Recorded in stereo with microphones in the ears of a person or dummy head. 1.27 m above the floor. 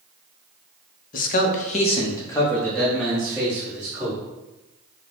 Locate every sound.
1.1 s a man speaking: 45° left (ahead or behind), 0.7 m; by 4.2 s 10° right (ahead or behind), 1.6 m